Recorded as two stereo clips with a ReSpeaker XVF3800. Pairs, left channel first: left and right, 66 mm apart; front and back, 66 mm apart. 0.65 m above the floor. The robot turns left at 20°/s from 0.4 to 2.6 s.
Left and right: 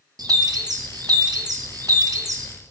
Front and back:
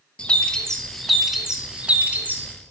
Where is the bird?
75° right, 0.5 m; by 2.5 s 120° right, 0.5 m.